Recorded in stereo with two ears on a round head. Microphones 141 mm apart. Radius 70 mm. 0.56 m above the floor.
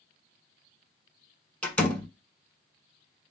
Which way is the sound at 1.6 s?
10° left (ahead or behind).